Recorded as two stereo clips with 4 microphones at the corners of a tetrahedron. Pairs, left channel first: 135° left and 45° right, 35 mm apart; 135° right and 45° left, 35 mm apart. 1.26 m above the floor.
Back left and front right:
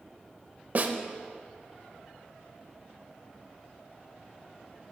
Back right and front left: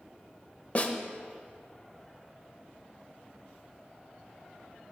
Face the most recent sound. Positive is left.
turn(degrees=-85)